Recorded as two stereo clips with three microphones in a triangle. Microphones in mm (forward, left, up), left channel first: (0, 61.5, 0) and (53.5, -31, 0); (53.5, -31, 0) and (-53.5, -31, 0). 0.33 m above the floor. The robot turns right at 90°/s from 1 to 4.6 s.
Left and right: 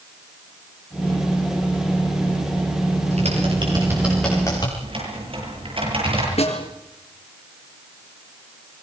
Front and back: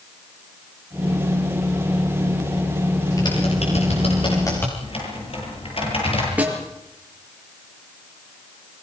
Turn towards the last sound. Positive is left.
turn(degrees=105)